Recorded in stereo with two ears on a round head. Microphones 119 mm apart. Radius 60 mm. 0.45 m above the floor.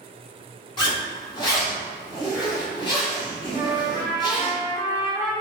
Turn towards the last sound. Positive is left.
turn(degrees=-30)  # may be behind; listen again after turning